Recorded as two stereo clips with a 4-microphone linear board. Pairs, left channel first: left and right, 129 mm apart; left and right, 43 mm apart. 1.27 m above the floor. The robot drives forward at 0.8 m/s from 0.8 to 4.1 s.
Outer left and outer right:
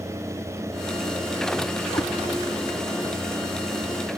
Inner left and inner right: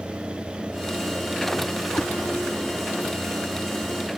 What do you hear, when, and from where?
1.9 s a cat meowing: 35° left (ahead or behind)